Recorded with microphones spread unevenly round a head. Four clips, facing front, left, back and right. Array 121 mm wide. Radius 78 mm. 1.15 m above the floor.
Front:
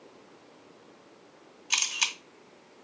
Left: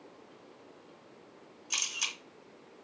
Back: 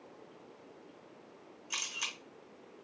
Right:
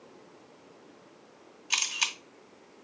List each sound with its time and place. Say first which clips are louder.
1.7 s a camera shutter: right 7 dB, front 9 dB; 30° right, 2 m